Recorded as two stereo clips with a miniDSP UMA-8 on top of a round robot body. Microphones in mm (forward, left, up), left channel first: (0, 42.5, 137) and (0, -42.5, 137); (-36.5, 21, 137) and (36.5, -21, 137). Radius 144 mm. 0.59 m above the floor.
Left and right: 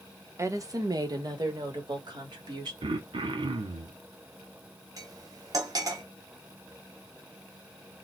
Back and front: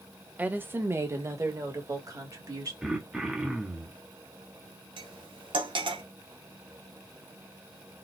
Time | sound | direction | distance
0.4 | a woman speaking | 85° right | 0.9 m
2.8 | throat clearing | 115° right | 0.5 m
5.0 | cutlery clinking | 45° right | 1.0 m